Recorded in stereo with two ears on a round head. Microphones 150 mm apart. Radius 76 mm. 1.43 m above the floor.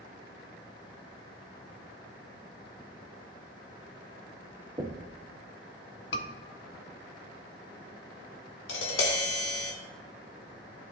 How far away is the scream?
About 1.3 m.